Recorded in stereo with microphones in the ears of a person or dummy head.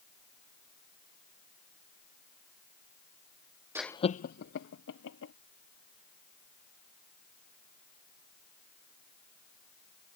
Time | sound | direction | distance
3.8 | laughter | 10° right (ahead or behind) | ?